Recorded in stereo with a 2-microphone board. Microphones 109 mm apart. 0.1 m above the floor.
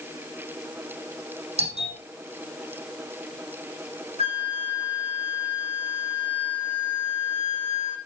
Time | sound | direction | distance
1.6 | a doorbell | 70° right (ahead or behind) | 5 m
4.2 | a flute | 65° right (ahead or behind) | 10 m